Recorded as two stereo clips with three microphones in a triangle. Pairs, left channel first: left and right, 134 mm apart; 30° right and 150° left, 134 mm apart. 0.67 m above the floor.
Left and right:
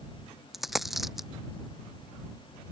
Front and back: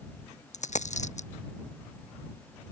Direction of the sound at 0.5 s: Straight ahead.